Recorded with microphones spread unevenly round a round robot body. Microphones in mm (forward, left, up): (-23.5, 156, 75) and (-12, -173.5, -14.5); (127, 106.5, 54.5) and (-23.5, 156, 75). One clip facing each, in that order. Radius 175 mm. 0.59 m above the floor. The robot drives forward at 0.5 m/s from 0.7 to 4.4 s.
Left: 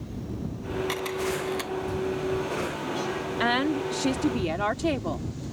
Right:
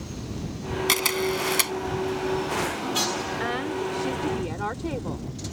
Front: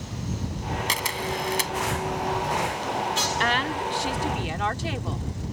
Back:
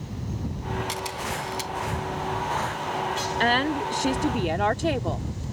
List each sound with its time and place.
0.9 s a camera shutter: 55° right; by 1.7 s 60° right
3.4 s a woman speaking: 110° left; by 5.3 s 125° left